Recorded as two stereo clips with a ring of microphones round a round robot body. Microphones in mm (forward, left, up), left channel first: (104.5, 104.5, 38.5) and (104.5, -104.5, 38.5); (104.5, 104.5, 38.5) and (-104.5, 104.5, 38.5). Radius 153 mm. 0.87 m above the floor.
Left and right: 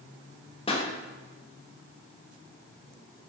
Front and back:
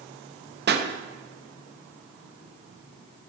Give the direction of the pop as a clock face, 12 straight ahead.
7 o'clock.